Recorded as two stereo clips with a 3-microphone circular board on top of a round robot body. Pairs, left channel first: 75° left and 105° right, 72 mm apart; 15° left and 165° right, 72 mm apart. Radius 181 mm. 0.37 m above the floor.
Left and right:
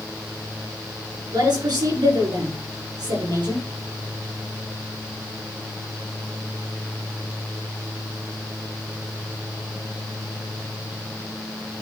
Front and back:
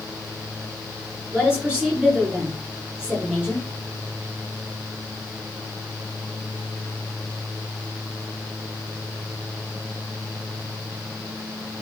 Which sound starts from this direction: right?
A woman speaking, at 1.3 s.